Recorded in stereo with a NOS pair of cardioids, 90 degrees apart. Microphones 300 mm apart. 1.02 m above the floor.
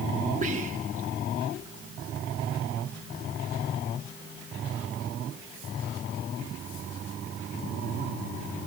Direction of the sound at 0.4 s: 25° right.